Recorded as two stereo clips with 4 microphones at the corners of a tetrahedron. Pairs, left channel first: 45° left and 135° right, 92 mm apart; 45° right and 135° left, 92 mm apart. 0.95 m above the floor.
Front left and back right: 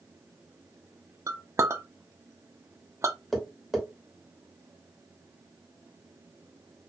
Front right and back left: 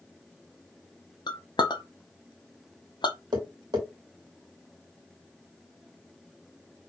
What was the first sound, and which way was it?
A clink, 80° right.